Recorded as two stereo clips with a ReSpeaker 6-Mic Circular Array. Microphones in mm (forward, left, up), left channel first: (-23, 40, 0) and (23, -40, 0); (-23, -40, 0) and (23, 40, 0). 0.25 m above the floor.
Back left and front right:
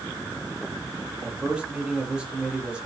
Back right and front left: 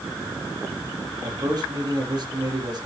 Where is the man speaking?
20° left, 8 m.